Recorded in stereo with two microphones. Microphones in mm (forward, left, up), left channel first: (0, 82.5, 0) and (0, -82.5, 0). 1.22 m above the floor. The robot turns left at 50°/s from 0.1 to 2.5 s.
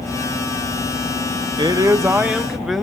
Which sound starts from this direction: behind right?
A man speaking, at 1.6 s.